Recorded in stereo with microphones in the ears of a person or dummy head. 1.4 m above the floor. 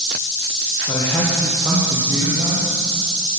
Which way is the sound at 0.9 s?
25° left (ahead or behind).